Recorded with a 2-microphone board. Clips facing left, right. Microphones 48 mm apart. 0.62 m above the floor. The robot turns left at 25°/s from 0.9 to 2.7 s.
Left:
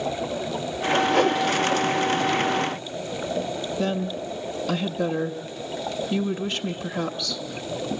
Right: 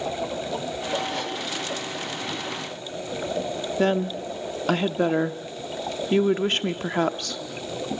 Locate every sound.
1.1 s a whoosh: 55° left (ahead or behind), 0.8 m
3.8 s a woman speaking: 40° right (ahead or behind), 1.0 m